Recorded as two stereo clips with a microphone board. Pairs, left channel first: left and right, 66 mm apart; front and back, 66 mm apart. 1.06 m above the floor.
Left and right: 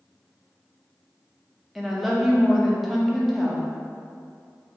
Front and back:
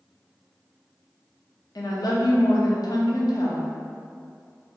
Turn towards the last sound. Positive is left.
turn(degrees=0)